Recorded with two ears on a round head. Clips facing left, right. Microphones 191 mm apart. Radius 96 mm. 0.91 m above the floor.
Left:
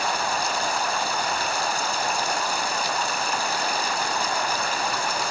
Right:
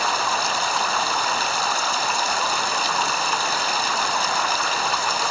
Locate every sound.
0.0 s running water: 65° right (ahead or behind)